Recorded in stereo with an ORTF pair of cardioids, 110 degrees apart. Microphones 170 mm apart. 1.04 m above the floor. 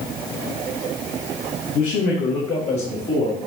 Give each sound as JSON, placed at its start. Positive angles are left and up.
{"t": 1.7, "sound": "a man speaking", "azimuth_deg": 70, "distance_m": 1.2}